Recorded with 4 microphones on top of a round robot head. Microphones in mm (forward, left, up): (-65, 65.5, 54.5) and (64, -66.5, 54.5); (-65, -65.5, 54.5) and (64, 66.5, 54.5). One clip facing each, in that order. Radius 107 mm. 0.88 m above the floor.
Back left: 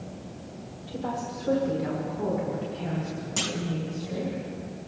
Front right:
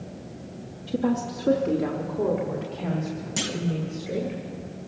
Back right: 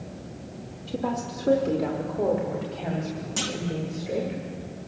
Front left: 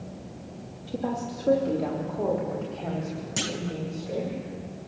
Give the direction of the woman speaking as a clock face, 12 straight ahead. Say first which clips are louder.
Front right 8 dB, back right 1 dB; 1 o'clock.